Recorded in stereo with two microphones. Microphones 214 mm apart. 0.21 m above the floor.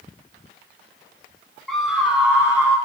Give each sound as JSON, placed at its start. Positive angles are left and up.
{"t": 1.7, "sound": "a scream", "side_deg": 0, "distance_m": 1.6}